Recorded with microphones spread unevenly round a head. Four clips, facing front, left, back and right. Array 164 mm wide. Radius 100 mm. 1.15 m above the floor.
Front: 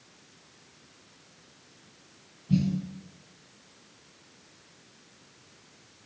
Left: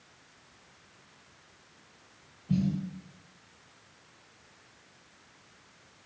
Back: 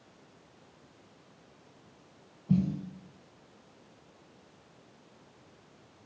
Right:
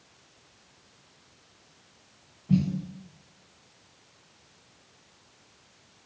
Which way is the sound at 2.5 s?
165° right.